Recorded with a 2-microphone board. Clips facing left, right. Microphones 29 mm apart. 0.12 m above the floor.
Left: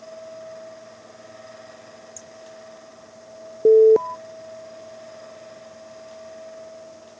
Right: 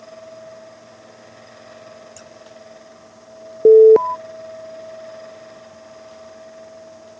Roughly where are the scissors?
Right.